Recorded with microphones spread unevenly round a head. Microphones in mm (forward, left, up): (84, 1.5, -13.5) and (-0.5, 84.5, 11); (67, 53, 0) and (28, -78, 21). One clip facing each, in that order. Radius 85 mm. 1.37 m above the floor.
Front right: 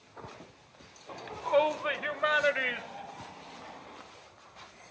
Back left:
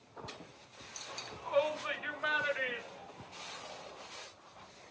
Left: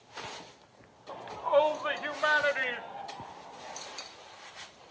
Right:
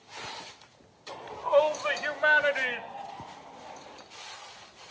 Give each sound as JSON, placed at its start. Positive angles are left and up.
{"t": 1.1, "sound": "a shout", "azimuth_deg": -15, "distance_m": 1.1}